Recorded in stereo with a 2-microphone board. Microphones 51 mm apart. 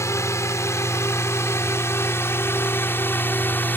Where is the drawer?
I don't hear a drawer.